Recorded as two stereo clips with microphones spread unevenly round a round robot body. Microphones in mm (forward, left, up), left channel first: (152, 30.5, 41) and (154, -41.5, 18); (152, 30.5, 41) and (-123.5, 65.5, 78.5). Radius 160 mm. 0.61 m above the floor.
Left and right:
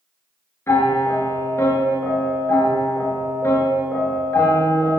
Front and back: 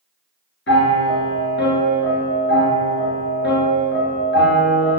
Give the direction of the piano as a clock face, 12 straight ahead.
10 o'clock.